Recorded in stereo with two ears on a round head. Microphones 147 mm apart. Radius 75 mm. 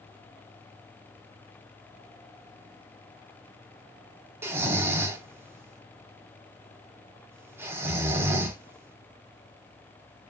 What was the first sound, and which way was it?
Snoring, 15° right (ahead or behind).